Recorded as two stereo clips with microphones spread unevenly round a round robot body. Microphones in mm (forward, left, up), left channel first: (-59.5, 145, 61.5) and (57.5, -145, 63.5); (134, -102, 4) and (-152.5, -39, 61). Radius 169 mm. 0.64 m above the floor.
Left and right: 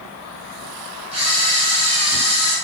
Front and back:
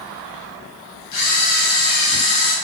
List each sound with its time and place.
1.1 s a camera shutter: straight ahead, 1.0 m